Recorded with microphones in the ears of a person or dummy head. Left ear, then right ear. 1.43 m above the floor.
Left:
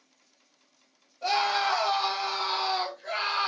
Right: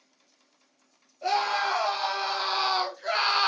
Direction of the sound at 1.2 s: 5° right (ahead or behind).